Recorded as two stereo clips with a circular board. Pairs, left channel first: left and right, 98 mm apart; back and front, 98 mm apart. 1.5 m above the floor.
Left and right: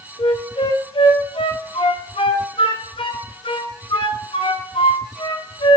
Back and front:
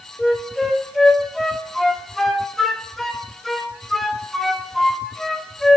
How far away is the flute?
About 0.6 m.